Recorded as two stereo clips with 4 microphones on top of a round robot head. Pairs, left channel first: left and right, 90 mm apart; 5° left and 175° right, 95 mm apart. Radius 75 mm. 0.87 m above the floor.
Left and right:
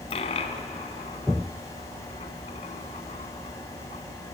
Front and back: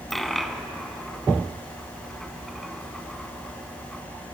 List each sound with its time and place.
0.1 s a dropped coin: 95° left, 1.2 m